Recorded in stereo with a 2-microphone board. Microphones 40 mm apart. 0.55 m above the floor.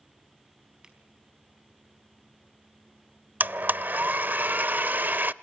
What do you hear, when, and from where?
0.8 s a finger snap: 20° right (ahead or behind), 4 m
3.4 s a blender: 50° right (ahead or behind), 0.5 m